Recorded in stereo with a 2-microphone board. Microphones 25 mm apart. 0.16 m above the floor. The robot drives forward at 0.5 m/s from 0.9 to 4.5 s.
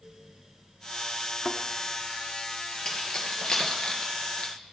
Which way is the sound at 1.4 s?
15° left (ahead or behind).